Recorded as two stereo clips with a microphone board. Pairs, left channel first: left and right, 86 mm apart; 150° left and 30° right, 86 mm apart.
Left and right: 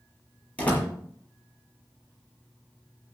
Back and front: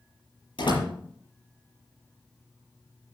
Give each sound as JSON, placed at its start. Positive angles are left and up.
{"t": 0.6, "sound": "a door slam", "azimuth_deg": 165, "distance_m": 6.5}